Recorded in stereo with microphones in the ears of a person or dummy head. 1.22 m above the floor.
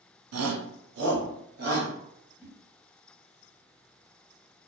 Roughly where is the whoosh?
Centre.